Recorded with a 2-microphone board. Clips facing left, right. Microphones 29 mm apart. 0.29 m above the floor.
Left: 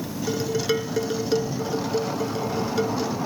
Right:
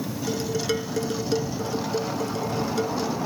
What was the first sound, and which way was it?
Dishes clattering, 15° left (ahead or behind).